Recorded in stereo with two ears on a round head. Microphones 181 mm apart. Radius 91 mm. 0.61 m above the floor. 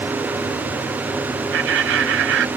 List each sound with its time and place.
1.5 s laughter: 65° right (ahead or behind)